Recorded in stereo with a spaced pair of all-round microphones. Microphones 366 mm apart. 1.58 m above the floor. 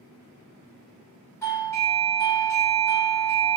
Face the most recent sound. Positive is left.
turn(degrees=10)  # may be behind; listen again after turning